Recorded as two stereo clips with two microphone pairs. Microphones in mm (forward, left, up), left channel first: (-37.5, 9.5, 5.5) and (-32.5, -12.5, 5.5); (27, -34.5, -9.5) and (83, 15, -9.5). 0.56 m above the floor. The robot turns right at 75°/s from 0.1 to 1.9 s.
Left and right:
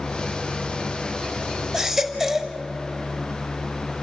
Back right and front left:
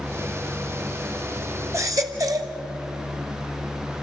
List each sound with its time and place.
1.7 s a baby crying: 10° right, 1.3 m; by 2.5 s 5° left, 1.3 m